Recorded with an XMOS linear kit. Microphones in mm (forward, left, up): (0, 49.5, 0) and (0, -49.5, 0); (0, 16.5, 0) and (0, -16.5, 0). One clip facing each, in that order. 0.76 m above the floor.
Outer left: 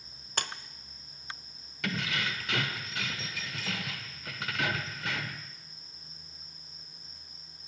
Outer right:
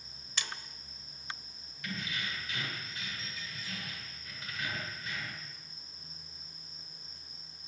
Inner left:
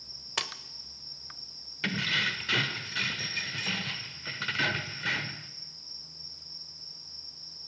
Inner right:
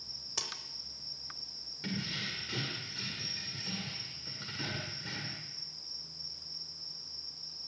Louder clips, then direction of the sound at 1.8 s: Outer left 6 dB, inner left 10 dB; 85° left.